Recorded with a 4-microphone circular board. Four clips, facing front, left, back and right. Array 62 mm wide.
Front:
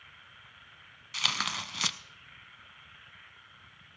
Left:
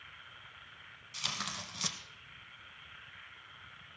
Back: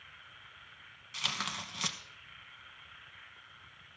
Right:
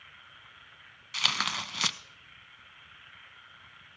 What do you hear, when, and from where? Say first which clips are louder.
1.1 s tearing paper: right 10 dB, front 5 dB; 60° right, 0.5 m